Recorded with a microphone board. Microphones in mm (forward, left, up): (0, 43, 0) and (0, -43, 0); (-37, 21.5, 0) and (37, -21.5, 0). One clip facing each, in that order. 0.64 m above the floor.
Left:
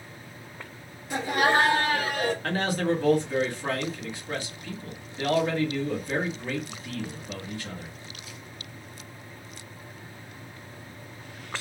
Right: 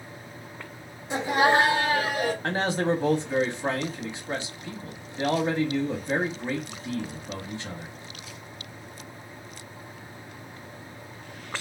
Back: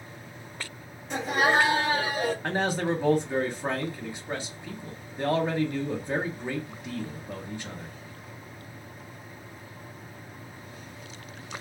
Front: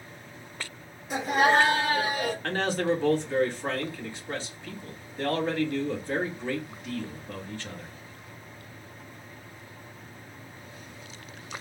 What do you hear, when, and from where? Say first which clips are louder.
1.1 s laughter: right 2 dB, front 2 dB; 100° right, 0.8 m; by 2.3 s 165° right, 1.0 m
2.4 s a man speaking: right 1 dB, even; 145° right, 0.9 m